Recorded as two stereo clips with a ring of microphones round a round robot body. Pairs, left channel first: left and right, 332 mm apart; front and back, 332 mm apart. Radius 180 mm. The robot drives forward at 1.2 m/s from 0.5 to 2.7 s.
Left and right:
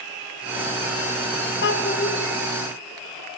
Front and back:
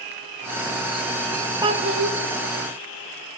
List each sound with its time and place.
1.6 s a child speaking: 105° left, 0.7 m; by 2.1 s 155° left, 1.0 m